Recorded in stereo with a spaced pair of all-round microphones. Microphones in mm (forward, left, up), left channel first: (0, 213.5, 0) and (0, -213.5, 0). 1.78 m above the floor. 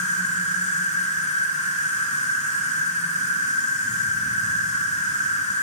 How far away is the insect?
About 3 m.